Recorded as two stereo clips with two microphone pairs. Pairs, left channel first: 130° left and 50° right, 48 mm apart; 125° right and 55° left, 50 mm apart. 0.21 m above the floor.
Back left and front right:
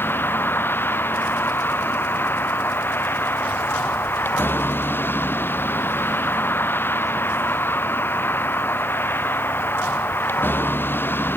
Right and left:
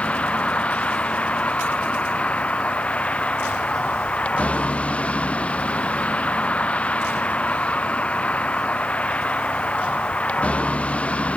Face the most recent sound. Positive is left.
turn(degrees=175)